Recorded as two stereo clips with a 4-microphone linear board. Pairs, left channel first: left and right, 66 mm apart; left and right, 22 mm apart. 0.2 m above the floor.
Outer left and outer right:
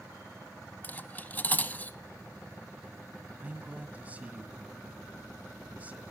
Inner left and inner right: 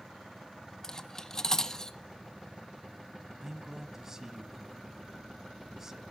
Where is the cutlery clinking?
25° left (ahead or behind), 0.6 m.